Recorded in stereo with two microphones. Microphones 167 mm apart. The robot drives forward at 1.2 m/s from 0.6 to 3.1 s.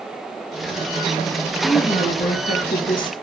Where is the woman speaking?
35° left (ahead or behind), 3.5 m; by 3.1 s 50° left (ahead or behind), 2.5 m.